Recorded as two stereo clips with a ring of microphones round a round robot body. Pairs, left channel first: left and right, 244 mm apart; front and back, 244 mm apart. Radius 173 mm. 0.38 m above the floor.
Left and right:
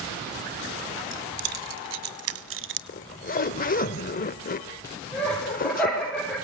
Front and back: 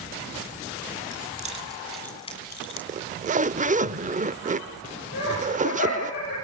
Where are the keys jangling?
120° right, 2.5 m; by 2.8 s 50° right, 1.9 m.